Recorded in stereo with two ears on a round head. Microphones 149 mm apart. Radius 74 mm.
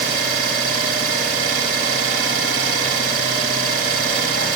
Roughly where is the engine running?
Right.